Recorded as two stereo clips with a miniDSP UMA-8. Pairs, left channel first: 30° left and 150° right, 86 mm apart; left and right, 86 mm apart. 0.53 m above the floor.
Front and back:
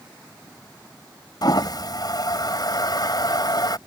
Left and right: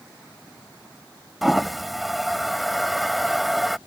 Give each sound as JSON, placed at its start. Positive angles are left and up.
{"t": 1.4, "sound": "a toilet flushing", "azimuth_deg": 0}